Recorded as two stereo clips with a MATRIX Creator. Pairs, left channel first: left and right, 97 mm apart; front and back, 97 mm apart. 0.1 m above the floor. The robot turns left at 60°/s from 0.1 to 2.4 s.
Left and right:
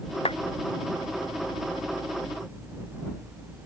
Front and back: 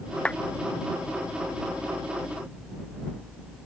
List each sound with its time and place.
0.2 s a clap: 80° left; by 0.4 s 70° left